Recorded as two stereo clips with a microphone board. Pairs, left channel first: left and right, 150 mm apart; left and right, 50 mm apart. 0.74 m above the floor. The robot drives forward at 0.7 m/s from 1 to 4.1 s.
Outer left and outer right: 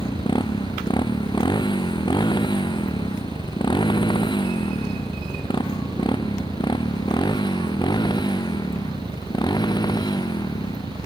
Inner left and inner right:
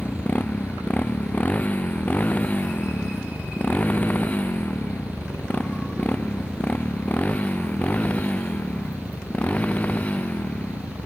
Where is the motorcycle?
30° left (ahead or behind); by 11.1 s 25° left (ahead or behind).